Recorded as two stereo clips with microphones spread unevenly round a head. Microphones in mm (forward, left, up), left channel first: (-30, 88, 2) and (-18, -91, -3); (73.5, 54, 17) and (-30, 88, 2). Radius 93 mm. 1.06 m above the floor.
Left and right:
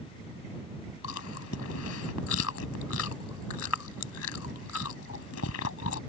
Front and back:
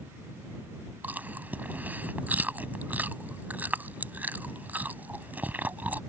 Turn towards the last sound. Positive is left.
turn(degrees=85)